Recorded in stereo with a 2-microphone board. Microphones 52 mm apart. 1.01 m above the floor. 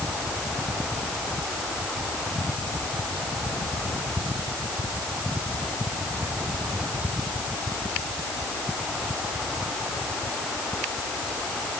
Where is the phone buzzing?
I don't hear a phone buzzing.